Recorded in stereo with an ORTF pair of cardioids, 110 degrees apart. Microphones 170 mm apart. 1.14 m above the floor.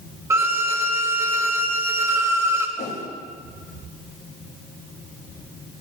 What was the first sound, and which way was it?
A violin, 20° right.